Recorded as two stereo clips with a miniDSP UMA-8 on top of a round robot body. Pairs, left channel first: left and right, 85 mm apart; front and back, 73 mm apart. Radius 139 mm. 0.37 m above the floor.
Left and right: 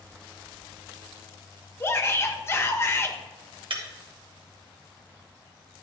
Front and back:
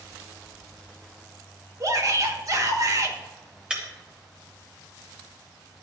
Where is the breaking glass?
100° right, 1.6 m.